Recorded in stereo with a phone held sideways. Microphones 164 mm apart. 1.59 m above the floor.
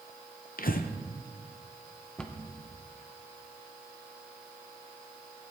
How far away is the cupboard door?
About 1.0 m.